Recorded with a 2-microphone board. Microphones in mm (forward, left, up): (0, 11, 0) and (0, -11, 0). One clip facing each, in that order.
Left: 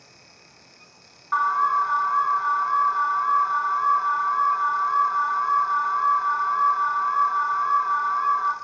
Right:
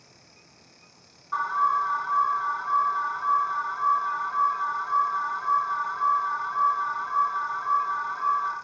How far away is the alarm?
About 0.9 m.